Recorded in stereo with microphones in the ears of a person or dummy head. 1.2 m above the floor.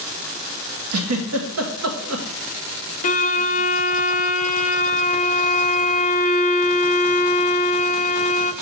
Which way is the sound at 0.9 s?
75° right (ahead or behind).